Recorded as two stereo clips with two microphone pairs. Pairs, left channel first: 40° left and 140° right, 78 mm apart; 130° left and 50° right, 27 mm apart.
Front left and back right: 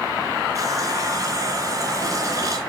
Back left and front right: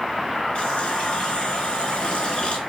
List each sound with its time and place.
0.6 s a running tap: 170° left, 3 m